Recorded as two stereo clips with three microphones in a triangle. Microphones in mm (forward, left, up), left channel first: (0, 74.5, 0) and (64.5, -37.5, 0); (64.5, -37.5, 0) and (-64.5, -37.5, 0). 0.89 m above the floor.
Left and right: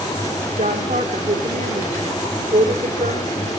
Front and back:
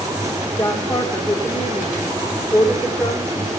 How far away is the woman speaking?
About 2 m.